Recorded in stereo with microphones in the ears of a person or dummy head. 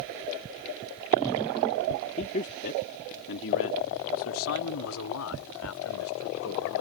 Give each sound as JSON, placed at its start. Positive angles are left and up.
{"t": 2.2, "sound": "a man speaking", "side_deg": 35}